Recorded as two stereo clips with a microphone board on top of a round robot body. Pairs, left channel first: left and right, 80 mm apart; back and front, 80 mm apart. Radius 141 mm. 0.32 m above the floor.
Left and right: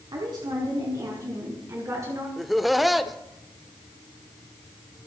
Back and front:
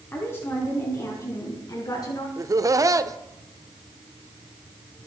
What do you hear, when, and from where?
0.1 s a woman speaking: 120° right, 4 m; by 2.3 s 145° right, 5 m
2.4 s laughter: straight ahead, 1.3 m